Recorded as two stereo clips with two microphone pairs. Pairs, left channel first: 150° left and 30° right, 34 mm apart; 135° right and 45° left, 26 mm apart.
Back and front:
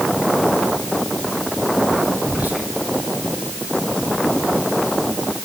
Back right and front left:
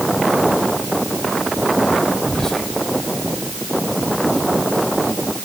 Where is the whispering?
65° right, 6.5 m.